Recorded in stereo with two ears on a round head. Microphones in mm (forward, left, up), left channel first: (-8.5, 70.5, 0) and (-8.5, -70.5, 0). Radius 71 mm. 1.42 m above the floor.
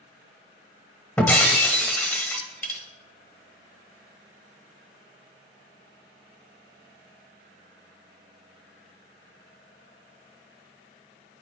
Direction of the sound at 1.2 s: 10° left (ahead or behind).